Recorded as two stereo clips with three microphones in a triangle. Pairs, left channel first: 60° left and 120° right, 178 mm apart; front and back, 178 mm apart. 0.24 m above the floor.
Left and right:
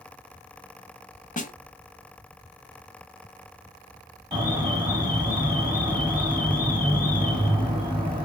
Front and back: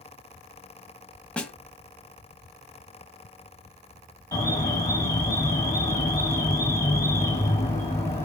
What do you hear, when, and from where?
1.4 s a snare drum: 80° left, 0.6 m
4.3 s an alarm: 70° right, 2.5 m